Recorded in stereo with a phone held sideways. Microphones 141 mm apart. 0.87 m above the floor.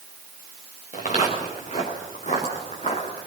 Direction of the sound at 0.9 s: 60° left (ahead or behind).